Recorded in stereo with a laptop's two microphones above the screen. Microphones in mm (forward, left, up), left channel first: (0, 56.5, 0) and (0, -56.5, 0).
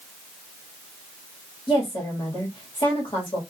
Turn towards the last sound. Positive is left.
turn(degrees=45)  # may be behind; listen again after turning